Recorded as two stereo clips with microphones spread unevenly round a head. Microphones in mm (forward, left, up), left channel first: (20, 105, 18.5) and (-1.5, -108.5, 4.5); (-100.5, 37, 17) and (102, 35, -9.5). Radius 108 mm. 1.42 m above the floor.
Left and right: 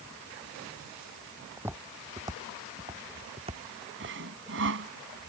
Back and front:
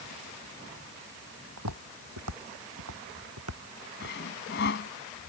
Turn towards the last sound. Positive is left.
turn(degrees=-135)